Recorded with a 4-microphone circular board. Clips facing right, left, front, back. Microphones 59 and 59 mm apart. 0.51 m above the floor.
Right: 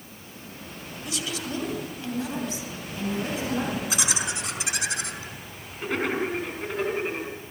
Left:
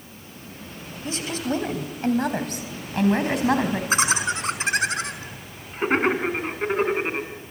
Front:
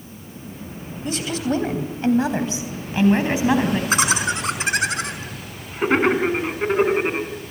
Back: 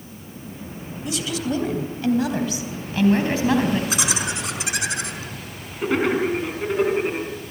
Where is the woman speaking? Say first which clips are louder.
Left 6 dB, front 2 dB; 40° left, 3.5 m; by 3.8 s 75° left, 4.5 m.